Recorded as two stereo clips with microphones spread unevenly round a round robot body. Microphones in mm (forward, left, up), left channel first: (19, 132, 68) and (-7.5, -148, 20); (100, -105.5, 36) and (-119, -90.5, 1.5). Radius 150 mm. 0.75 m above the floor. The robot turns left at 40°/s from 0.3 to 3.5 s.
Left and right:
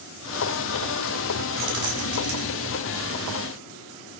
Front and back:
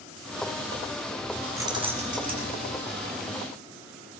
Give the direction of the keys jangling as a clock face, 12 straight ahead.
4 o'clock.